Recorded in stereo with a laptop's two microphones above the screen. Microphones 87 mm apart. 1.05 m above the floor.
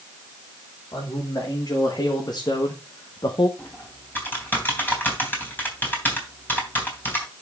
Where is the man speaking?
45° left (ahead or behind), 2 m; by 3.5 s 60° left (ahead or behind), 0.7 m.